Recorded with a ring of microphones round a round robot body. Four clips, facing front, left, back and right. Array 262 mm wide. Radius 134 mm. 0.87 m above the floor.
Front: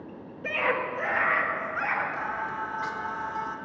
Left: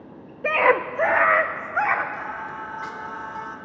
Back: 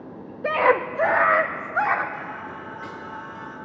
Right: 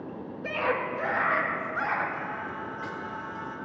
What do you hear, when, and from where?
0.4 s a scream: 135° left, 1.3 m; by 2.0 s 140° left, 3 m
2.1 s singing: 30° left, 3 m